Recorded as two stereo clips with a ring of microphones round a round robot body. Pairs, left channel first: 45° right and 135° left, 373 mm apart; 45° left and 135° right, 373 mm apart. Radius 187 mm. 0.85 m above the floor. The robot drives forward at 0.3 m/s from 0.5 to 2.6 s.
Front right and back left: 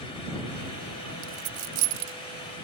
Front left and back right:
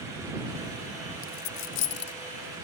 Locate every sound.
1.2 s a dropped coin: 90° left; by 2.1 s 100° left